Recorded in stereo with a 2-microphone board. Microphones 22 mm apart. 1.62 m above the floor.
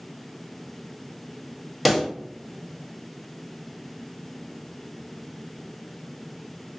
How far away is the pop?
About 0.6 m.